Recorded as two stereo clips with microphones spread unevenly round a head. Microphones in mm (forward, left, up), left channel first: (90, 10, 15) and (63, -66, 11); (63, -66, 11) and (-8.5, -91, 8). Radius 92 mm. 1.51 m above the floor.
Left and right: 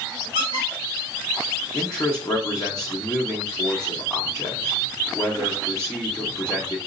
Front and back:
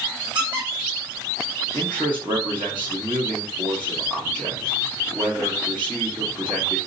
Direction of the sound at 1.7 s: 140° left.